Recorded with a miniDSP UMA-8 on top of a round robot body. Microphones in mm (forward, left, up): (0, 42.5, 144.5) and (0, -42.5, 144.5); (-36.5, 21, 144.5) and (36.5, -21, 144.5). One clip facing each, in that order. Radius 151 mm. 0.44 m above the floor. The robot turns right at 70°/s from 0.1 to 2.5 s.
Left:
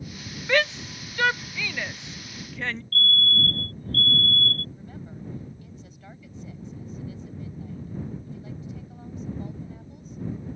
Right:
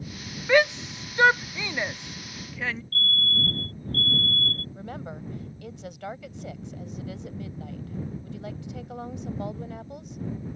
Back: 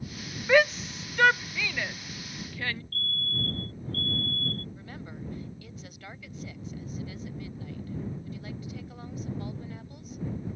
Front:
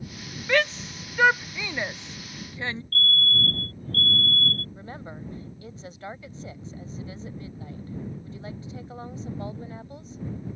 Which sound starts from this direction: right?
A woman speaking, at 4.8 s.